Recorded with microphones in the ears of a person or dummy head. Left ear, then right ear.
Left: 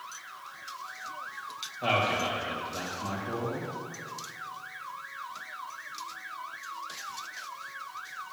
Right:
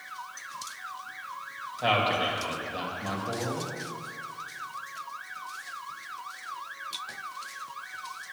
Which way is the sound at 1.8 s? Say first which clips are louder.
Right 2 dB; 20° right (ahead or behind).